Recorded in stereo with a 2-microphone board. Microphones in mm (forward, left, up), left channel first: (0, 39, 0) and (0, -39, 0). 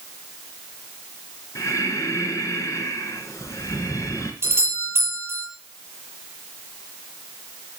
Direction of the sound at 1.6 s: 45° left (ahead or behind).